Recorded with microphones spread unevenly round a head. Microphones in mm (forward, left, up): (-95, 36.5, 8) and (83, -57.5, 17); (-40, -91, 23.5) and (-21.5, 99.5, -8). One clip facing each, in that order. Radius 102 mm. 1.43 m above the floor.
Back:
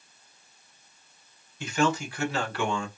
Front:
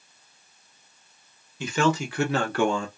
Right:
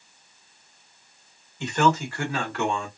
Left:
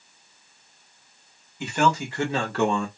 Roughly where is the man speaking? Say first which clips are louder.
Front 2 dB, right 1 dB; ahead.